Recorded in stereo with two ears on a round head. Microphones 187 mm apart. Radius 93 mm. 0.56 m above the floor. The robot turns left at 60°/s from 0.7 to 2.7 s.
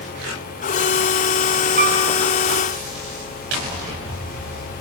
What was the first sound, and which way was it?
A piano, 40° right (ahead or behind).